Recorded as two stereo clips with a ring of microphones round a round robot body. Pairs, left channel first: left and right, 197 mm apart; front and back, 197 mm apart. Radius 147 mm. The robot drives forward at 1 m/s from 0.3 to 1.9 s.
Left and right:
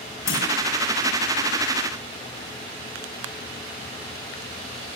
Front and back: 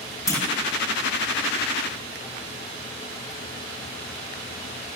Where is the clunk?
75° left, 7.5 m.